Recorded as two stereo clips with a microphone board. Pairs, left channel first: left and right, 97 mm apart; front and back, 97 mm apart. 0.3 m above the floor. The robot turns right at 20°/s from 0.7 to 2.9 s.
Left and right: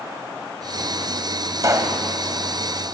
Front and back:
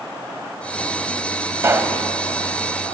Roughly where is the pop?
Behind right.